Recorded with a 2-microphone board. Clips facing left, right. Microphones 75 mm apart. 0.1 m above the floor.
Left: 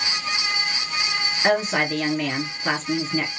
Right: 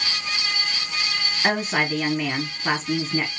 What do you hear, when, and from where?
1.4 s a woman speaking: 5° right (ahead or behind), 1.6 m